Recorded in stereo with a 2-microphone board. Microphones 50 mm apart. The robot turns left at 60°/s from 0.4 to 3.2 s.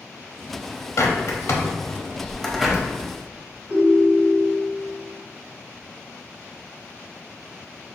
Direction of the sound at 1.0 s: 75° left (ahead or behind).